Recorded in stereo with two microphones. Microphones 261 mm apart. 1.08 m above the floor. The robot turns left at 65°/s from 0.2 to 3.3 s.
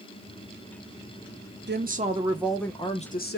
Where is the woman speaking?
125° right, 0.6 m; by 3.4 s 130° left, 0.6 m.